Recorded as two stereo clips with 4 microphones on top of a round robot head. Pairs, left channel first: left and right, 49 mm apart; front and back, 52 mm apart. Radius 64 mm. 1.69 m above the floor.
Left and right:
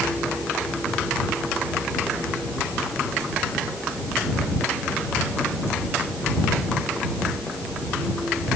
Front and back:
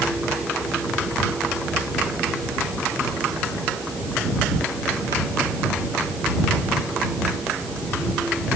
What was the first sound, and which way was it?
Only background noise.